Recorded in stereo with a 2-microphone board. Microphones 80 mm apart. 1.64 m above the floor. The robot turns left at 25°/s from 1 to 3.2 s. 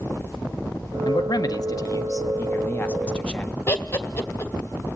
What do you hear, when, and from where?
1.1 s a man speaking: 70° left, 1.4 m; by 3.6 s 15° left, 1.4 m
3.7 s laughter: 30° left (ahead or behind), 2.5 m